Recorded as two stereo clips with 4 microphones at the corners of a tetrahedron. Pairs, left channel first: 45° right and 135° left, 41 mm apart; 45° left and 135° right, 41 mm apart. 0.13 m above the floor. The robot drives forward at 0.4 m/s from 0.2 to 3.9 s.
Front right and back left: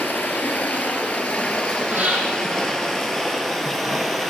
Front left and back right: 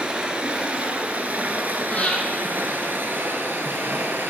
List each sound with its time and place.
0.0 s running water: 75° right, 1.6 m; by 4.3 s 130° right, 1.9 m
1.9 s breathing: 95° left, 3.5 m; by 2.2 s 100° left, 3.5 m